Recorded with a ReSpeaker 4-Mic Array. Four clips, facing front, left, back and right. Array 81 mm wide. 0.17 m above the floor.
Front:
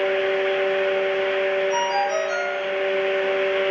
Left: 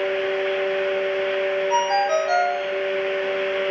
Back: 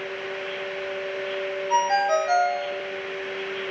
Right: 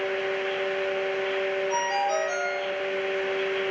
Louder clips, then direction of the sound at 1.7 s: Left 7 dB, back 1 dB; 150° left.